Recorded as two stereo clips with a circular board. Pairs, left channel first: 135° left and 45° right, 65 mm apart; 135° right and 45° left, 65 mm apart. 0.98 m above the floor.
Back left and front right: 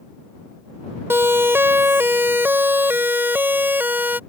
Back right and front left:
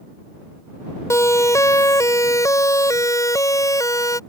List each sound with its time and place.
1.1 s a siren: 100° right; by 4.2 s 105° right